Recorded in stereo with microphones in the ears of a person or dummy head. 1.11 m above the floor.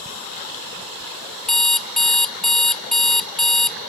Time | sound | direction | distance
1.5 | an alarm clock | 5° left (ahead or behind) | 0.7 m